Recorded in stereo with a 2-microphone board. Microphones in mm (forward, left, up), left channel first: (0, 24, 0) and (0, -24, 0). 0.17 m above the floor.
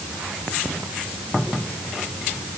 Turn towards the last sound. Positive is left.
No sound to turn to.